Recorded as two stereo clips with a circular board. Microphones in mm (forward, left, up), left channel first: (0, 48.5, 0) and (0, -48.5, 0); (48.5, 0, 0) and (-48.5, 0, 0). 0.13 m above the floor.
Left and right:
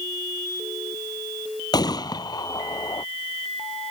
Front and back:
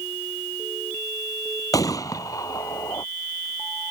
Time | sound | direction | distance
1.7 | a gunshot | 50° left | ?